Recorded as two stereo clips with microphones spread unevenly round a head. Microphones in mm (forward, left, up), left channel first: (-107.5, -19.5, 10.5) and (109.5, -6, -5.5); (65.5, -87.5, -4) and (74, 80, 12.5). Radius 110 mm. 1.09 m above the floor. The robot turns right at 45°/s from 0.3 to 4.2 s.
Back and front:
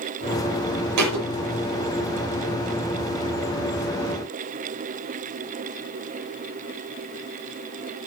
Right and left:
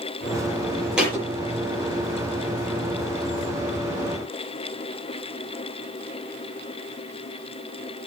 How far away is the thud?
About 7.5 m.